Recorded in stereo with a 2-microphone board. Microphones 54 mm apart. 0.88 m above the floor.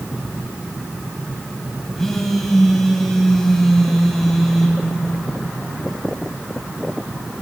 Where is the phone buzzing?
5° left (ahead or behind), 1.4 m.